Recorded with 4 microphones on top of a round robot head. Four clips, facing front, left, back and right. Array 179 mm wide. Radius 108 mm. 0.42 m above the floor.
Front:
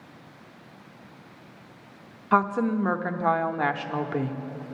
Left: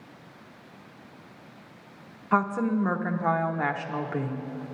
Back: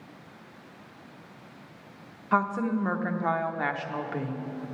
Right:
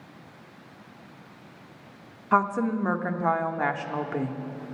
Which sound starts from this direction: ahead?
A woman speaking, at 2.3 s.